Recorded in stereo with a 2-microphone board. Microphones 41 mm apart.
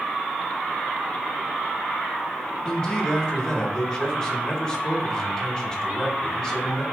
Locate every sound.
2.6 s a man speaking: 20° left (ahead or behind), 1.0 m